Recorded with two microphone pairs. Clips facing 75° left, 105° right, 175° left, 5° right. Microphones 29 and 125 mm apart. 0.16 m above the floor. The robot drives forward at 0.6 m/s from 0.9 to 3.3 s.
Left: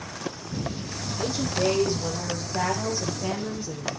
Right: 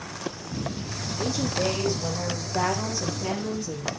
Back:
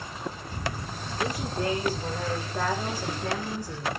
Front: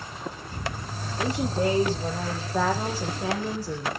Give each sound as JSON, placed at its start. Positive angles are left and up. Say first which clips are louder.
{"t": 1.2, "sound": "a woman speaking", "louder": "even, front 4 dB", "azimuth_deg": -5, "distance_m": 6.5}